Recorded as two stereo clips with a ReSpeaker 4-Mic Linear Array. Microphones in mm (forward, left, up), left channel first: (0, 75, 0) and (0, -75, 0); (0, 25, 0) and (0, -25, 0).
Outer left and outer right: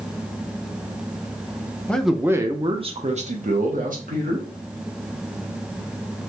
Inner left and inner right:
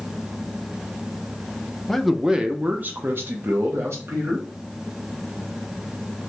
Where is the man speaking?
10° left (ahead or behind), 0.6 m; by 4.5 s 65° right (ahead or behind), 1.5 m.